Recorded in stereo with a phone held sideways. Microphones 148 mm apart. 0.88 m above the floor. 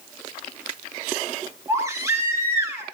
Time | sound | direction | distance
1.7 | a baby crying | 20° right (ahead or behind) | 5.5 m